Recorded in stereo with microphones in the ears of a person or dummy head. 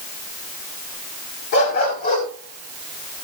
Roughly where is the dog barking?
Left.